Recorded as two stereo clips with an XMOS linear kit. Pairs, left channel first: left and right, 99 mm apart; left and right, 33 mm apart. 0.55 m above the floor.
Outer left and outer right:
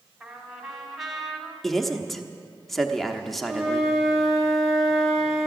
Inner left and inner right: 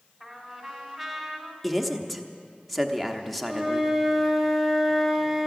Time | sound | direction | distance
0.2 | a trumpet | centre (ahead or behind) | 1.9 m
1.6 | a man speaking | centre (ahead or behind) | 0.9 m
3.5 | a flute | centre (ahead or behind) | 2.5 m